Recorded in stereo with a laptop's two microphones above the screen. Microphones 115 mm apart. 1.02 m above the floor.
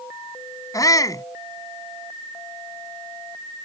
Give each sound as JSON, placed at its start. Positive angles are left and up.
{"t": 0.7, "sound": "a shout", "side_deg": 30}